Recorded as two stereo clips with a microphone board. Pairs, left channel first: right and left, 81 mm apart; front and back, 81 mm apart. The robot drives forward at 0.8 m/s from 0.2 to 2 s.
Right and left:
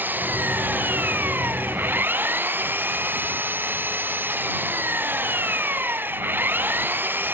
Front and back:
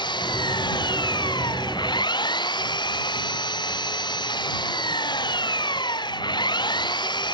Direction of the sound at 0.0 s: 25° left.